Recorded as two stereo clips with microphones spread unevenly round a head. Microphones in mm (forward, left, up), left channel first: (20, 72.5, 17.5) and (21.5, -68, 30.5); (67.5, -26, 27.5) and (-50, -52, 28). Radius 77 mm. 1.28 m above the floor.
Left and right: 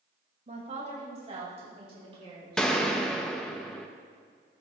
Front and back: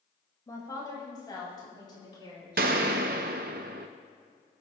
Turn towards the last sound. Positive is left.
turn(degrees=180)